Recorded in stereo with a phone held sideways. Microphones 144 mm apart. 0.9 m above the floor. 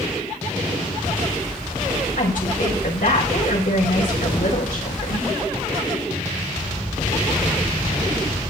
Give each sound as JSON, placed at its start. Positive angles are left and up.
{"t": 2.2, "sound": "a woman speaking", "side_deg": 75, "distance_m": 5.0}